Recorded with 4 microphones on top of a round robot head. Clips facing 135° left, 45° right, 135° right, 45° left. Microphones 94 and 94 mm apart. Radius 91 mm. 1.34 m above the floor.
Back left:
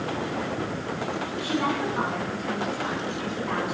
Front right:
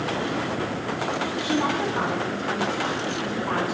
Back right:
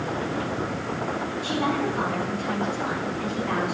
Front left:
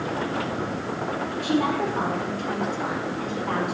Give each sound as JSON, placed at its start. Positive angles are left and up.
{"t": 1.4, "sound": "a woman speaking", "azimuth_deg": 25, "distance_m": 4.0}